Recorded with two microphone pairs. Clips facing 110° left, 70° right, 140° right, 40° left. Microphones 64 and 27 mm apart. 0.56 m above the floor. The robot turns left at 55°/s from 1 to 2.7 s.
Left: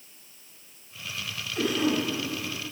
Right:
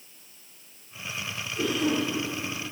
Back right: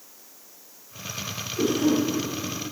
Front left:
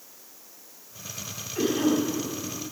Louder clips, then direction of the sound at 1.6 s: Left 1 dB, back right 1 dB; 65° left.